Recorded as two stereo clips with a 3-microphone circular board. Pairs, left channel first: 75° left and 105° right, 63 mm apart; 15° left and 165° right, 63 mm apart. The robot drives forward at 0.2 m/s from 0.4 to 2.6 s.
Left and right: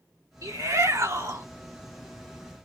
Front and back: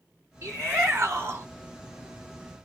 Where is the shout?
125° right, 1.7 m; by 1.5 s 130° right, 1.9 m.